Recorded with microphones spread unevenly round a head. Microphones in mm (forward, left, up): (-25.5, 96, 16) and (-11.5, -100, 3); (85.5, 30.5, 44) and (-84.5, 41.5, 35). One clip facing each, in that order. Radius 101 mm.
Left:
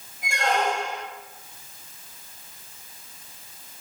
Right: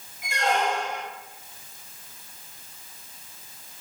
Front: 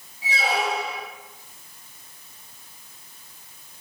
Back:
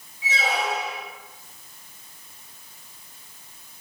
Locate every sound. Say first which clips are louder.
0.2 s a squeak: left 1 dB, front 1 dB; 50° left, 0.9 m